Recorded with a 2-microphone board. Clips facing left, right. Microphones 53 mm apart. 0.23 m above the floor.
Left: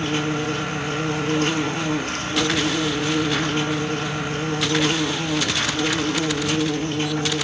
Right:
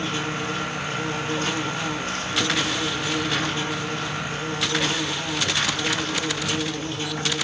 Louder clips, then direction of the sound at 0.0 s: Left 4 dB; 50° left (ahead or behind).